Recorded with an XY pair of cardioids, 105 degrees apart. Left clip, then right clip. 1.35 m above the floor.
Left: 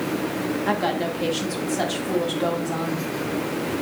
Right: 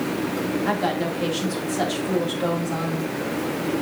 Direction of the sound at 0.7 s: 10° left.